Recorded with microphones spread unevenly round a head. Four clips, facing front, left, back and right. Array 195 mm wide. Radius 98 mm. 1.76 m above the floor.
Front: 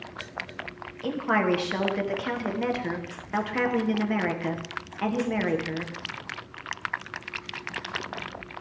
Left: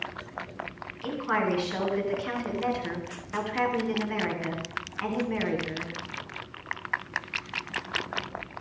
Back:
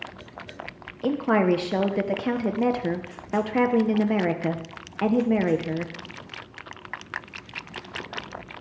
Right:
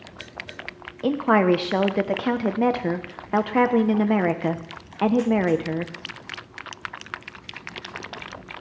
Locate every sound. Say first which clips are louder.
1.0 s a woman speaking: right 9 dB, back 4 dB; 110° right, 1.0 m